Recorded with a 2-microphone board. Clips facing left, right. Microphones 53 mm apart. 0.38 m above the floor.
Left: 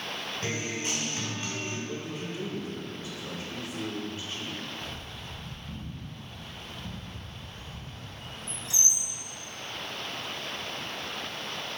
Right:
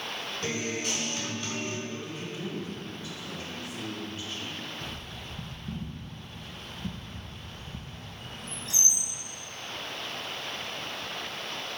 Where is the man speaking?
30° left (ahead or behind), 1.3 m.